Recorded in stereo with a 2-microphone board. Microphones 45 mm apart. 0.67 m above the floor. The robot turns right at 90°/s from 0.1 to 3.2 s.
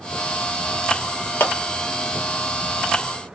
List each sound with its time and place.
1.4 s a clap: 60° left (ahead or behind), 1.0 m; by 1.5 s 65° left (ahead or behind), 1.0 m